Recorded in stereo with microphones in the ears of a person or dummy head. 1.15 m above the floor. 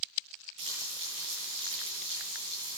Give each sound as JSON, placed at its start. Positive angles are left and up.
{"t": 0.6, "sound": "frying", "side_deg": -35, "distance_m": 7.0}